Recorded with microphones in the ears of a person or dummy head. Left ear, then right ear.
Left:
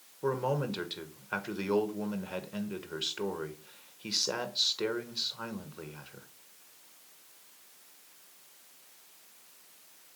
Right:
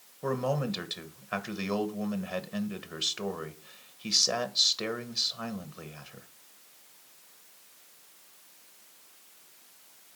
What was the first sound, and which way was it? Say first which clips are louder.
A man speaking: right 1 dB; 5° right (ahead or behind).